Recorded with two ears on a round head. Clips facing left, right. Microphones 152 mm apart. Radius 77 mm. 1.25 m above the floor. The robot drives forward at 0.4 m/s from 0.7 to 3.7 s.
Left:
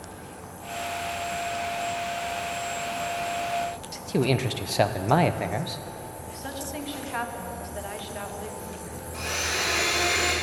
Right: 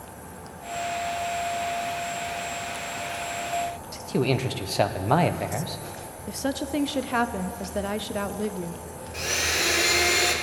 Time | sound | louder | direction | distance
3.9 | a man speaking | even | 5° left (ahead or behind) | 0.5 m
6.3 | a woman speaking | right 10 dB | 55° right (ahead or behind) | 0.6 m
9.1 | a blender | right 2 dB | 25° right (ahead or behind) | 1.8 m